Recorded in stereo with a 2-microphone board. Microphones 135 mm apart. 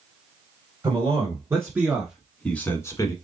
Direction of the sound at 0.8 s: 25° right (ahead or behind).